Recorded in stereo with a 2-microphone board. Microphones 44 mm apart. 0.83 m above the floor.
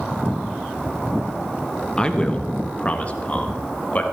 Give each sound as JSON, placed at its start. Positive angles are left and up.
{"t": 2.0, "sound": "a man speaking", "side_deg": 15, "distance_m": 0.8}